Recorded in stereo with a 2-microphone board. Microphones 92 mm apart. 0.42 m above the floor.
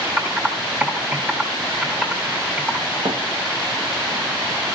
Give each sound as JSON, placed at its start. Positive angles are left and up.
{"t": 0.2, "sound": "typing on a keyboard", "side_deg": -20, "distance_m": 3.0}
{"t": 3.0, "sound": "a thud", "side_deg": -65, "distance_m": 6.0}